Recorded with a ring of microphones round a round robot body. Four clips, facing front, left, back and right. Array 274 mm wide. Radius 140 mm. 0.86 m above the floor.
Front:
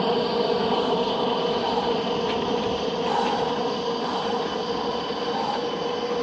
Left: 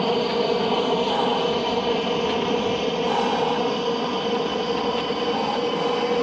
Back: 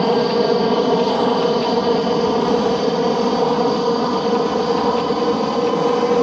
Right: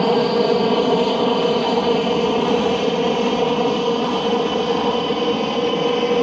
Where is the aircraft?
140° right; by 6.2 s 155° right.